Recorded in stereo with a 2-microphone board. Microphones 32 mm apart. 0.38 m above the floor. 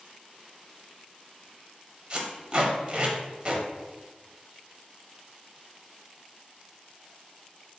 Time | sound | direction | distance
2.1 | tape being pulled | 30° right (ahead or behind) | 0.8 m